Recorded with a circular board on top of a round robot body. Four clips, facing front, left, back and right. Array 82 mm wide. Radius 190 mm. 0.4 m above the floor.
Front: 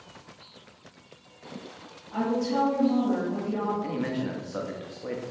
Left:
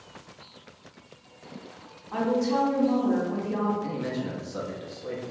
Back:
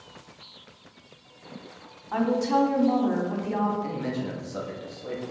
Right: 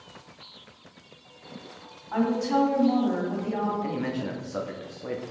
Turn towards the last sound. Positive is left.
turn(degrees=-55)